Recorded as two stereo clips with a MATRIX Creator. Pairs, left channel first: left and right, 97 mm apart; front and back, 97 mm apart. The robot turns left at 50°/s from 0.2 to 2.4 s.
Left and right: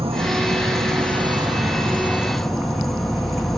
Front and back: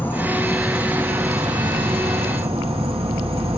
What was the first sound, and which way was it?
An insect, 70° right.